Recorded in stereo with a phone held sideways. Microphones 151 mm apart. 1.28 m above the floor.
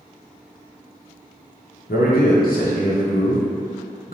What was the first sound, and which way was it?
A man speaking, 75° left (ahead or behind).